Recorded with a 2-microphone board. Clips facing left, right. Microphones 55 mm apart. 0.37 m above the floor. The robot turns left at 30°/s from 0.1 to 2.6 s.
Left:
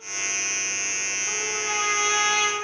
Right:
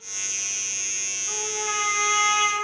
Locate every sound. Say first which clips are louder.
1.3 s a trumpet: right 1 dB; 15° left, 6.5 m; by 2.6 s 25° right, 6.5 m